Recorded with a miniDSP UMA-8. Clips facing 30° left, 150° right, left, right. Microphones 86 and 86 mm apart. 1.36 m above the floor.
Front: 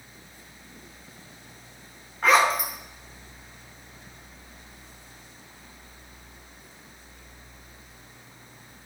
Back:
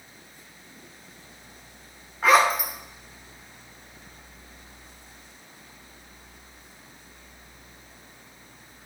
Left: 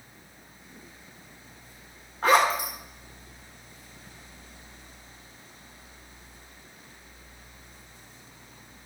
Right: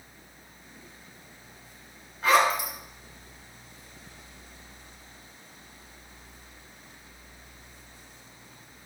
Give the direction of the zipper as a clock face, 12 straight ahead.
8 o'clock.